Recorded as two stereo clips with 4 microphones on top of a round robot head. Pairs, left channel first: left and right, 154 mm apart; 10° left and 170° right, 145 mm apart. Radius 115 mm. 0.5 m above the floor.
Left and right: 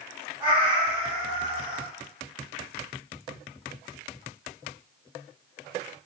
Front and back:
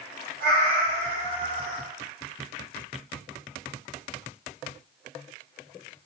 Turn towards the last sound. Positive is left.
turn(degrees=-165)